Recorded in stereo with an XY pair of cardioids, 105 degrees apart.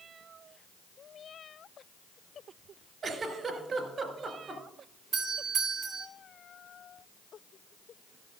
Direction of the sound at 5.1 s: 65° right.